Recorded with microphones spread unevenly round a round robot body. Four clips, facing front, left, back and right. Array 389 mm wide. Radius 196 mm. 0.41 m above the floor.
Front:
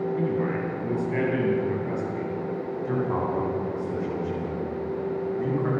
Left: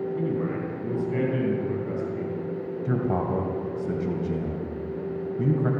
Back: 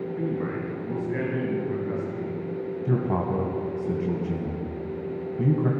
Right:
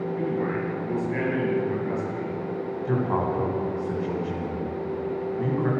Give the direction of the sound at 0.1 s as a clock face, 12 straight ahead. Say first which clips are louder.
Right 3 dB, front 3 dB; 11 o'clock.